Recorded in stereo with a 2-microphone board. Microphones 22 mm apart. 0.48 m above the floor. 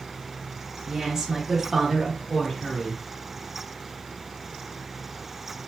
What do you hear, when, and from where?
0.9 s a woman speaking: 20° right (ahead or behind), 1.4 m; by 3.0 s 25° left (ahead or behind), 1.6 m